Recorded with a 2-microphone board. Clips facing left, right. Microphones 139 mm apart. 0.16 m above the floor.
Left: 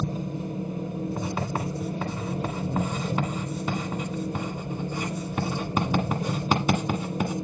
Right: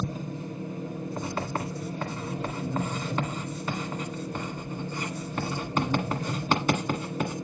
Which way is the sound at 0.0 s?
30° left (ahead or behind).